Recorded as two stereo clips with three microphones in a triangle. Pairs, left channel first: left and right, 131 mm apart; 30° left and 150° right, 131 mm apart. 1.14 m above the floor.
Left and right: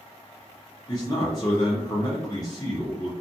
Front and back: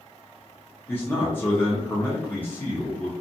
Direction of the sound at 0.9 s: 90° left.